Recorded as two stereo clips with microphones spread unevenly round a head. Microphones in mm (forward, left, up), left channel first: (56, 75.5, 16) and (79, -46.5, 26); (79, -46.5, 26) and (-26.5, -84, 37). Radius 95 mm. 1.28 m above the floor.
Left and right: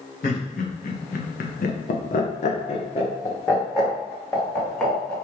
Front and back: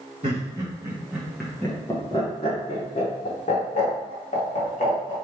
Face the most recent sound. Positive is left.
turn(degrees=30)